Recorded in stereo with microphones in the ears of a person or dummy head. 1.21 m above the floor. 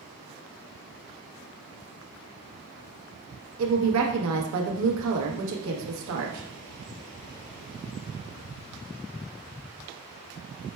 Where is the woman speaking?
80° right, 0.9 m.